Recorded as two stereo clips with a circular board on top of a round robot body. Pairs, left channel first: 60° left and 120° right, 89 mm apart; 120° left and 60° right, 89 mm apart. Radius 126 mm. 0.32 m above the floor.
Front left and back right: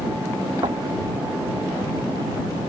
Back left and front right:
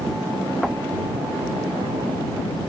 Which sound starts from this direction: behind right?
Knocking, at 0.6 s.